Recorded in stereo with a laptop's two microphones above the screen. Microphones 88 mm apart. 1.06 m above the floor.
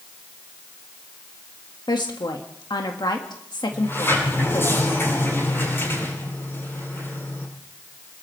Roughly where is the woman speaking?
Left.